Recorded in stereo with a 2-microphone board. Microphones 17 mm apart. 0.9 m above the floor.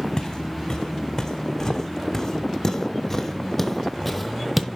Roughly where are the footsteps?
Left.